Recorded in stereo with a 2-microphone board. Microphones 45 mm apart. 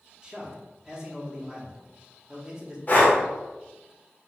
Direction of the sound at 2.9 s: 40° left (ahead or behind).